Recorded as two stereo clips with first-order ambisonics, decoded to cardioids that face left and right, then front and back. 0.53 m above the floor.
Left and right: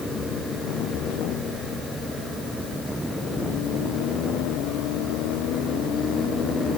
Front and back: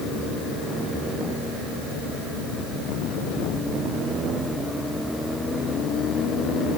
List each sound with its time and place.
Only background noise.